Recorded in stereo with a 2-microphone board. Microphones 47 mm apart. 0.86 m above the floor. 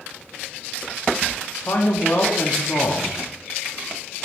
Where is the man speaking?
55° left (ahead or behind), 1.3 m.